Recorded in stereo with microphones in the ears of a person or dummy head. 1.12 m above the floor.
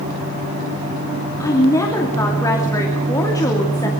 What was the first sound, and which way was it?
A woman speaking, 15° left (ahead or behind).